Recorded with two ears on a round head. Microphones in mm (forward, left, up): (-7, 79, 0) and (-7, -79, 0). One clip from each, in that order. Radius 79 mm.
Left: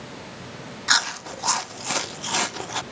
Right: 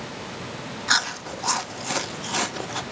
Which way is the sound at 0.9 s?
20° left (ahead or behind).